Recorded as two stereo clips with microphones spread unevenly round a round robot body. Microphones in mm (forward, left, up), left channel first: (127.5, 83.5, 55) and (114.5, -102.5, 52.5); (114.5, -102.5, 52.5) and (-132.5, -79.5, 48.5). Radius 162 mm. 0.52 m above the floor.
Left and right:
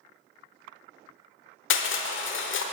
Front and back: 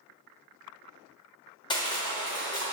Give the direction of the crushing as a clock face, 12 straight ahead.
10 o'clock.